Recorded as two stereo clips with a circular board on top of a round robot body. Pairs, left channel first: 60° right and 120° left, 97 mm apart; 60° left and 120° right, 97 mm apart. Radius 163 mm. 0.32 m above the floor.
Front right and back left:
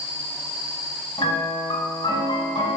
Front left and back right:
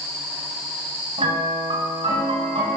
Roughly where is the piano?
Right.